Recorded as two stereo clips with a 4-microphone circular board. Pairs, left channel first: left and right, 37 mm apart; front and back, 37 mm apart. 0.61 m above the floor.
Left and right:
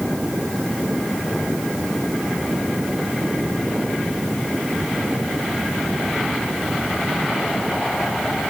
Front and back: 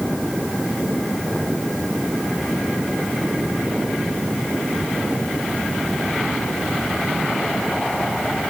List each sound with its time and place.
Only background noise.